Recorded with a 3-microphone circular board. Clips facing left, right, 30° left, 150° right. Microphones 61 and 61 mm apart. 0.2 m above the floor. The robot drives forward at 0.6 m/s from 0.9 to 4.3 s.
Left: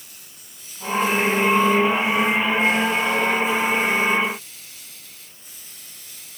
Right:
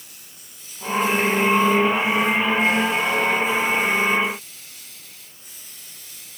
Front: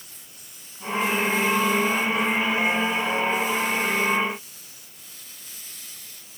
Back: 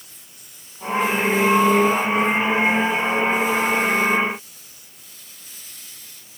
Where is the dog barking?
No dog barking in this recording.